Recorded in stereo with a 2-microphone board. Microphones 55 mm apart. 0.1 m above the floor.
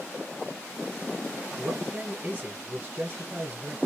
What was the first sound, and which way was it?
A man speaking, 25° right (ahead or behind).